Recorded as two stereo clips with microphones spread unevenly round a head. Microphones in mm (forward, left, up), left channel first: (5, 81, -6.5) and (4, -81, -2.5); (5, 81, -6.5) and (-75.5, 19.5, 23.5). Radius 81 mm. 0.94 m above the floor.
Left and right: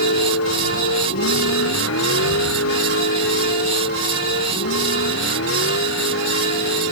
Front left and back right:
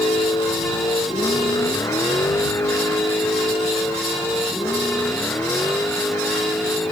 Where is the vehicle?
95° left; by 6.9 s 110° left.